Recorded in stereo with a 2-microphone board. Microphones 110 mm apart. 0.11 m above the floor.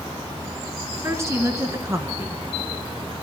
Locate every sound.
1.0 s a woman speaking: 25° right (ahead or behind), 1.5 m